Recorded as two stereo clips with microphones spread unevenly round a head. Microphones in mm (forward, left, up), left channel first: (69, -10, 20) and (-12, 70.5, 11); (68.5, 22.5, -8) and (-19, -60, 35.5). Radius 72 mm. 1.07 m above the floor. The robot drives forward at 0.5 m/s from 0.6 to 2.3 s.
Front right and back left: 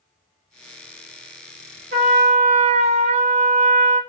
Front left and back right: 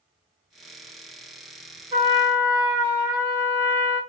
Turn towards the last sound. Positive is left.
turn(degrees=160)